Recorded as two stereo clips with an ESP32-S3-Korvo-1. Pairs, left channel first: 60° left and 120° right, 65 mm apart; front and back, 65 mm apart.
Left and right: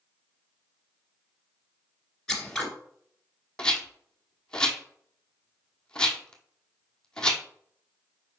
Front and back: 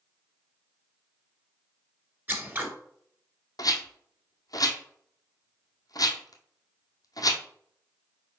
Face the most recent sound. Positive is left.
turn(degrees=-15)